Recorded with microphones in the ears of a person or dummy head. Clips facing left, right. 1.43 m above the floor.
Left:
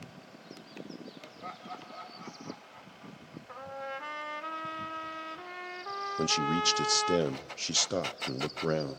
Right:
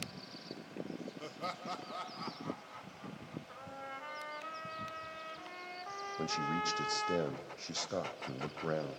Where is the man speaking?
45° left (ahead or behind), 0.6 m.